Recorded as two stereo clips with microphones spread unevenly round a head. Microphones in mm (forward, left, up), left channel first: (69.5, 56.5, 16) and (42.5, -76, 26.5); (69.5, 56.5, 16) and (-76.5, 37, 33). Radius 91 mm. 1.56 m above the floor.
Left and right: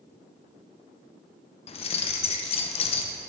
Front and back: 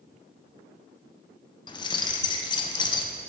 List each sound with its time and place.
1.7 s keys jangling: 60° left, 0.6 m